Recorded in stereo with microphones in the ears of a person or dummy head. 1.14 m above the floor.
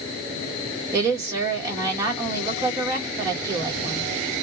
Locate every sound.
0.9 s a woman speaking: 15° right (ahead or behind), 1.4 m